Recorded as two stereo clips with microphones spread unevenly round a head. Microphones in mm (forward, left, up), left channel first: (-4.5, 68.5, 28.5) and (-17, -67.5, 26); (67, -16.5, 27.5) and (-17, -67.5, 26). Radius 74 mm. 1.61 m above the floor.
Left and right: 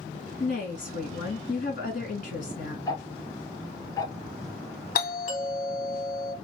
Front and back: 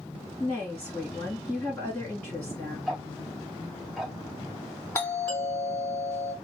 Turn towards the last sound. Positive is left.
turn(degrees=110)